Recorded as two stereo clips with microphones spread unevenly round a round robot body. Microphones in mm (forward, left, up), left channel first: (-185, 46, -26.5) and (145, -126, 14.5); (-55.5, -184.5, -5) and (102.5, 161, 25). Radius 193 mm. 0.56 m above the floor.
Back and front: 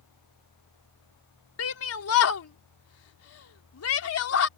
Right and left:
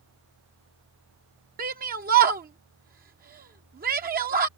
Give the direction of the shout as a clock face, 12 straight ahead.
8 o'clock.